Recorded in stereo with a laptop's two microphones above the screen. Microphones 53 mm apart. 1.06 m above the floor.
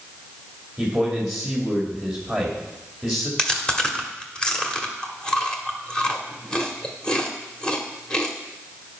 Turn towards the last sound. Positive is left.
turn(degrees=15)  # may be behind; listen again after turning